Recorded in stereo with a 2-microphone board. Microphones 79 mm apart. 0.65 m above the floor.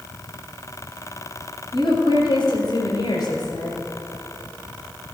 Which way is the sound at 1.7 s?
80° left.